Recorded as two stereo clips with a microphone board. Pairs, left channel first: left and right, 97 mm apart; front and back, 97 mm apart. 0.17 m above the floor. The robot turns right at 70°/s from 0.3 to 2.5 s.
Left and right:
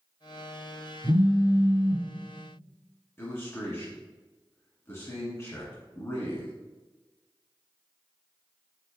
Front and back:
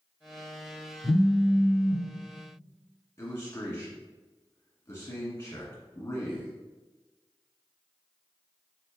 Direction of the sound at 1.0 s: 135° left.